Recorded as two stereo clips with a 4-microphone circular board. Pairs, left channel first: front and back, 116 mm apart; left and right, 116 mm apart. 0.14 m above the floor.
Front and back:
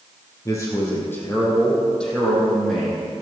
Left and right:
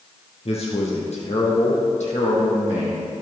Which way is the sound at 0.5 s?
60° left.